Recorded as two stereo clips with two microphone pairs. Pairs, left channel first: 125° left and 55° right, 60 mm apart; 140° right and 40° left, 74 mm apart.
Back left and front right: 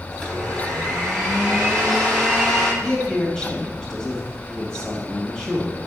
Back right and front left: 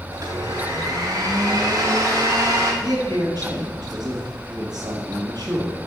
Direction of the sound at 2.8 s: 45° left.